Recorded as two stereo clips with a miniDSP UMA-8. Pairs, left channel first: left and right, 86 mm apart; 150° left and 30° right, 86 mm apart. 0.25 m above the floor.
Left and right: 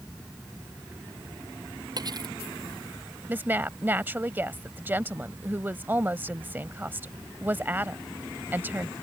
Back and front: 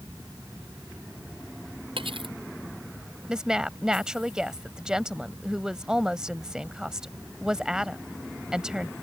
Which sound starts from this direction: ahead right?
Cutlery clinking, at 2.0 s.